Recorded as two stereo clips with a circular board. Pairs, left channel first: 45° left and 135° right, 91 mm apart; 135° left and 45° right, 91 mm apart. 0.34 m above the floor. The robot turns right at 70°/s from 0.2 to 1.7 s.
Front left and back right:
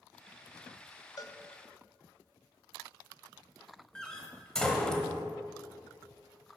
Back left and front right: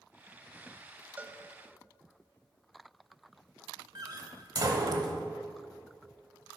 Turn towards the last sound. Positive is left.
turn(degrees=-35)